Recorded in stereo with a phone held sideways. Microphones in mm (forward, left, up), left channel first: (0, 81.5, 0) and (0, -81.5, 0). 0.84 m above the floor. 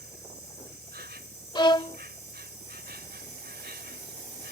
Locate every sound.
0.0 s an insect: 85° right
1.6 s a violin: 25° left (ahead or behind)